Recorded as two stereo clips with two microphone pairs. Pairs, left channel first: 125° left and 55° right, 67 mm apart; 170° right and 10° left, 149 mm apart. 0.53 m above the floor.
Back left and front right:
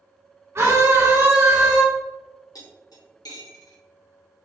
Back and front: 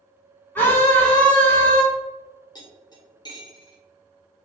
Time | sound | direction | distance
0.6 | a scream | 95° right | 1.8 m
2.5 | cutlery clinking | 130° left | 1.0 m